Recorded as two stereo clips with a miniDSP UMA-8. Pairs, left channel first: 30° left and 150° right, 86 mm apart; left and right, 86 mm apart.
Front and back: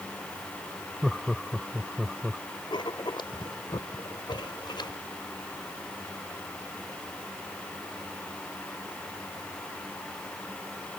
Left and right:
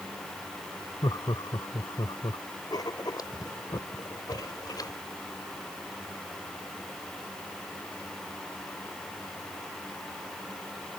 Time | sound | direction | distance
1.0 | laughter | 120° left | ?
2.7 | writing | 55° left | ?